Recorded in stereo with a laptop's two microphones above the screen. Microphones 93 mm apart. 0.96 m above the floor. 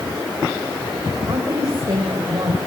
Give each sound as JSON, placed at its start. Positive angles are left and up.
{"t": 1.2, "sound": "a woman speaking", "side_deg": -45, "distance_m": 4.0}